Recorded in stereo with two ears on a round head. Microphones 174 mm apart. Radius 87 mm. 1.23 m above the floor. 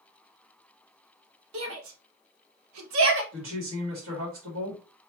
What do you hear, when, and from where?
1.5 s a shout: 70° right (ahead or behind), 1.7 m; by 3.2 s 65° right (ahead or behind), 1.3 m
3.3 s a woman speaking: 70° right (ahead or behind), 2.5 m